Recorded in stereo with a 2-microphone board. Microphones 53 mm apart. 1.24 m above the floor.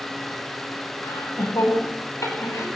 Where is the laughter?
85° left, 9.5 m; by 2.6 s 75° left (ahead or behind), 10.5 m.